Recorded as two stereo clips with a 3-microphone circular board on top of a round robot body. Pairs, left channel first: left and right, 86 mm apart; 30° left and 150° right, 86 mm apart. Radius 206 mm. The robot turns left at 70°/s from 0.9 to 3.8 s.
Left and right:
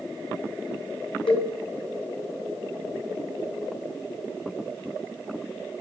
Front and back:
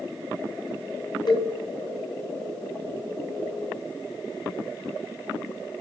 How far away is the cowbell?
About 1.3 m.